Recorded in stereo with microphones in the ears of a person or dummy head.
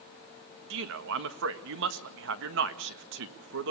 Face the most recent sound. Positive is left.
turn(degrees=-75)  # may be behind; listen again after turning